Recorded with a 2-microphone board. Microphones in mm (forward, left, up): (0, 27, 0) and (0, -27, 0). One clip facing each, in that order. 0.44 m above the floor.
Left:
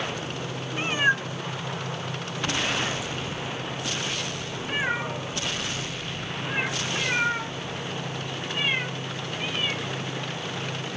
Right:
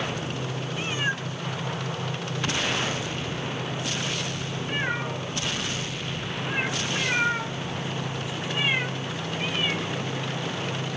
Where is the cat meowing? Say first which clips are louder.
Left 6 dB; 30° left (ahead or behind); by 10.9 s 15° right (ahead or behind).